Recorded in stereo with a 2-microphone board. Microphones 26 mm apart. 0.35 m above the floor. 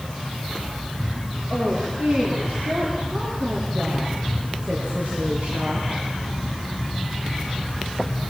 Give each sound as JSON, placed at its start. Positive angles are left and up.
{"t": 1.5, "sound": "a woman speaking", "side_deg": -80, "distance_m": 7.0}